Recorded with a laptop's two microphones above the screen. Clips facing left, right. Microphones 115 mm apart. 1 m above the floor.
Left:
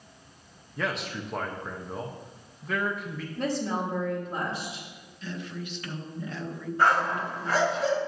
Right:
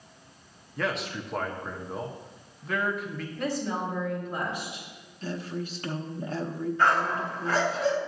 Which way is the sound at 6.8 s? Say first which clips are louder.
Left 1 dB; 35° left (ahead or behind).